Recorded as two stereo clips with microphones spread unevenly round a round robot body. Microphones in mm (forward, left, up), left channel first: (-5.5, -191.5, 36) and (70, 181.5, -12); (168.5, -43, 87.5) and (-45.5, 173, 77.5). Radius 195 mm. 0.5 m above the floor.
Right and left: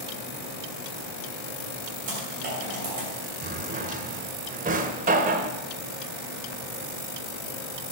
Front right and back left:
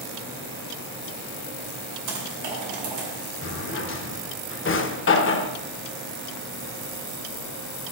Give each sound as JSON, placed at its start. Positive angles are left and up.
{"t": 2.1, "sound": "typing on a keyboard", "azimuth_deg": 145, "distance_m": 2.5}
{"t": 3.4, "sound": "a drawer", "azimuth_deg": 10, "distance_m": 0.7}